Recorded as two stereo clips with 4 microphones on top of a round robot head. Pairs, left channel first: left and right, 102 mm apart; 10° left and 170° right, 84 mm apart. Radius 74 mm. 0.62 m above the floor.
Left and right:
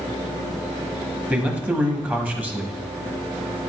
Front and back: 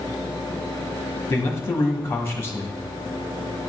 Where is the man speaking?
25° right, 1.1 m.